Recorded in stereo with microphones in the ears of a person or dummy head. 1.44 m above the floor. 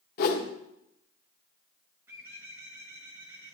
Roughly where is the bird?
Centre.